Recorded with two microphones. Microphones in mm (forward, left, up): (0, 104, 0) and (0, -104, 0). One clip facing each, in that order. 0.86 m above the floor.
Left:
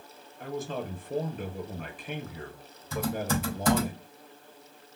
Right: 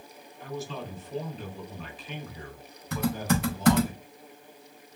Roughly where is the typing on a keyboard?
Right.